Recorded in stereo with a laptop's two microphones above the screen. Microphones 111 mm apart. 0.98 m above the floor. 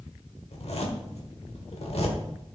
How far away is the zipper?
About 1.3 m.